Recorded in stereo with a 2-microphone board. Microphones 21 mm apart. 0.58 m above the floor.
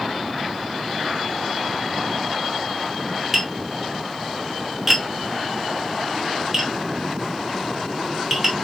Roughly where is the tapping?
Centre.